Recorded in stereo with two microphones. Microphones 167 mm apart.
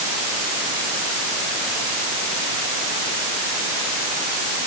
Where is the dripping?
No dripping in this recording.